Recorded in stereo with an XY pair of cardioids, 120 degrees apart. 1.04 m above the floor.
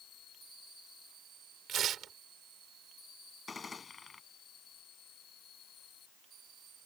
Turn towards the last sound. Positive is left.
turn(degrees=25)